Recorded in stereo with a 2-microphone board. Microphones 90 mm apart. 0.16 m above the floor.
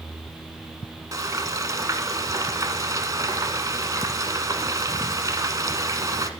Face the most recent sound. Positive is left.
turn(degrees=-45)  # may be behind; listen again after turning